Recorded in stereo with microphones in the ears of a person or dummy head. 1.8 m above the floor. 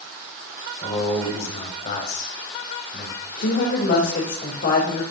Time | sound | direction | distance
0.8 | a man speaking | 35° left (ahead or behind) | 6 m
3.4 | a woman speaking | 55° left (ahead or behind) | 3.5 m